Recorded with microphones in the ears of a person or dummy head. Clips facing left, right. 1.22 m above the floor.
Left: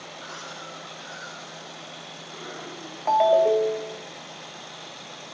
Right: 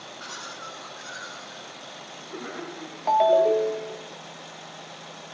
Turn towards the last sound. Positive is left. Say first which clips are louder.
# even
turn(degrees=0)  # may be behind; listen again after turning